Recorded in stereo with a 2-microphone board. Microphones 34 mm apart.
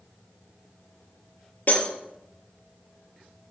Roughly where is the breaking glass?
Left.